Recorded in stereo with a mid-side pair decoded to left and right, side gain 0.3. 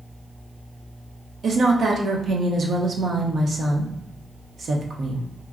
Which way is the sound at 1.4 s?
70° right.